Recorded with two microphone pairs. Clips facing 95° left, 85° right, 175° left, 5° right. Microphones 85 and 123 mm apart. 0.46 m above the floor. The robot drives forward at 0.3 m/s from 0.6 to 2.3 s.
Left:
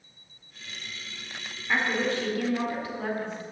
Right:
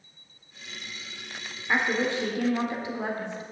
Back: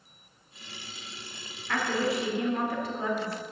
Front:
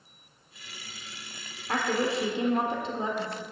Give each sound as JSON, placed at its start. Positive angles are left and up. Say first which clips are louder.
{"t": 1.7, "sound": "a woman speaking", "louder": "right 1 dB, front 1 dB", "azimuth_deg": -30, "distance_m": 1.5}